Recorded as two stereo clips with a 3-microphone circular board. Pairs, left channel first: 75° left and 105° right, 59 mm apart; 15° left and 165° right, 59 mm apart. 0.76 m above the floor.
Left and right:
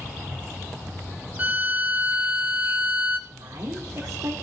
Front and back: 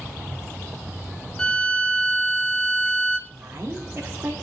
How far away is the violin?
About 1.0 m.